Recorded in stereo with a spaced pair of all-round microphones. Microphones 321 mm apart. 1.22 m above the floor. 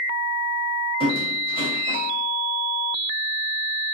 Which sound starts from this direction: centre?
A squeak, at 1.0 s.